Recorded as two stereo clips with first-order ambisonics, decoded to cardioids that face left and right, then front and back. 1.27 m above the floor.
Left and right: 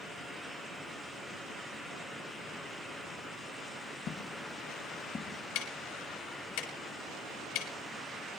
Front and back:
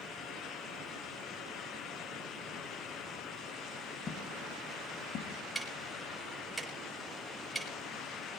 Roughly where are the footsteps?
Ahead left.